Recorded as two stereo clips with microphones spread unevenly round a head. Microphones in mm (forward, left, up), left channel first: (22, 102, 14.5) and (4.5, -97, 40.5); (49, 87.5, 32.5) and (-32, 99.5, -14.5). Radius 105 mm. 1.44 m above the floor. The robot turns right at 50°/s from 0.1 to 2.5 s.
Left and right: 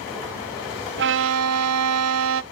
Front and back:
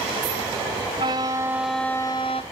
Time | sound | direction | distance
1.0 | a violin | 135° right | 0.6 m